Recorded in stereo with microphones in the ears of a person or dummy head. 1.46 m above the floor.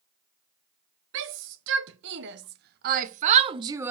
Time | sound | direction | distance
1.1 | a shout | 70° right (ahead or behind) | 1.6 m